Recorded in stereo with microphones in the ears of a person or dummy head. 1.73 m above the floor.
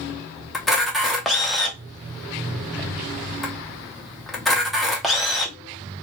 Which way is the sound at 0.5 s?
Centre (ahead or behind).